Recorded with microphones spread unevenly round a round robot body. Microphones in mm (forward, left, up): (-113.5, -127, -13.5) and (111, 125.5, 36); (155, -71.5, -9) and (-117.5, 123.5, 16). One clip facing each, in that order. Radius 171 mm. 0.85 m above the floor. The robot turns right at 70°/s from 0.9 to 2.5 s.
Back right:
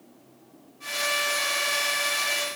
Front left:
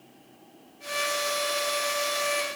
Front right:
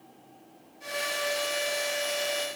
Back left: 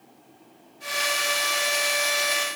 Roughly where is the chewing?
I don't hear chewing.